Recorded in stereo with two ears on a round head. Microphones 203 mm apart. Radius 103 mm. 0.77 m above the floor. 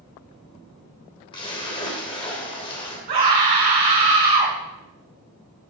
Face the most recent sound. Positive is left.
turn(degrees=-40)  # may be behind; listen again after turning